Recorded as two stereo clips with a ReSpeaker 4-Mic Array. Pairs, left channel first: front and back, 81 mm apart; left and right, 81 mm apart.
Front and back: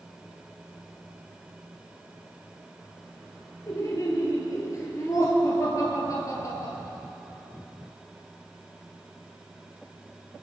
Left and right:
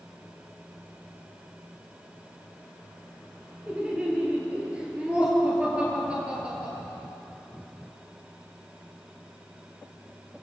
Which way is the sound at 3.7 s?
20° right.